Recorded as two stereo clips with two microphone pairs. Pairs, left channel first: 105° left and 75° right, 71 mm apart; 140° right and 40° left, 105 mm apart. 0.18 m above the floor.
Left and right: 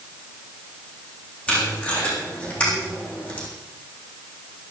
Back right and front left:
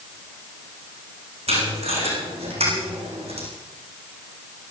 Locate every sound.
1.5 s tape being pulled: 30° left, 7 m